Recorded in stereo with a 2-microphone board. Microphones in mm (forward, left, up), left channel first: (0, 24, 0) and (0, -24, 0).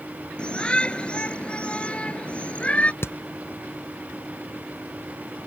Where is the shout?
20° left (ahead or behind); by 2.9 s 25° left (ahead or behind).